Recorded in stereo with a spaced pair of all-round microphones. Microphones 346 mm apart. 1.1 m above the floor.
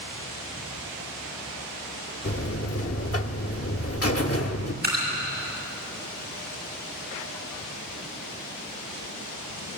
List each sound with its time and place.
2.2 s a buzzer: 40° left (ahead or behind), 0.8 m
4.8 s dripping: 30° right (ahead or behind), 7 m